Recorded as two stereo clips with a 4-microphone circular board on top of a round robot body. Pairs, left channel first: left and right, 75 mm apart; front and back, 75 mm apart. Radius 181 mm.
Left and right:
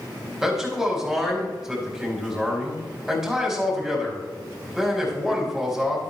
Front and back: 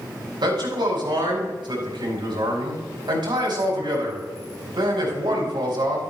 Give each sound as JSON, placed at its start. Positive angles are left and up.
{"t": 0.4, "sound": "a man speaking", "azimuth_deg": -170, "distance_m": 4.5}